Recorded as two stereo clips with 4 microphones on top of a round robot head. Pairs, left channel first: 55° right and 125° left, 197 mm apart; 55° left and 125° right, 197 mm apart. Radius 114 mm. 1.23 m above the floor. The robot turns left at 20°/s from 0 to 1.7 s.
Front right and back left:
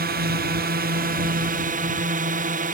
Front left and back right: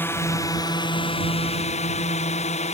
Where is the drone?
130° left; by 2.8 s 95° left.